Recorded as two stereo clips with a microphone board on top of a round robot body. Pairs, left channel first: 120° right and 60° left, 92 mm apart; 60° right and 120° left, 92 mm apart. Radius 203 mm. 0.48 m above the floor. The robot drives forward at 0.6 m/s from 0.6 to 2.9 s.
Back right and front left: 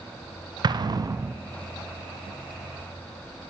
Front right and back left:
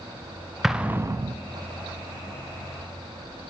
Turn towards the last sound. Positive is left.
turn(degrees=170)